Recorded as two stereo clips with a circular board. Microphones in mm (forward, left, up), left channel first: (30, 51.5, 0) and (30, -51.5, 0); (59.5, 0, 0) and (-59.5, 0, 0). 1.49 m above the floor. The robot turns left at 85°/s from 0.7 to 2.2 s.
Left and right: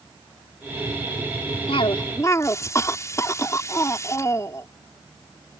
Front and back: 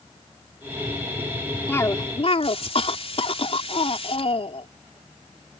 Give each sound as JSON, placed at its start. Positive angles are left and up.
{"t": 1.7, "sound": "a cough", "azimuth_deg": 75}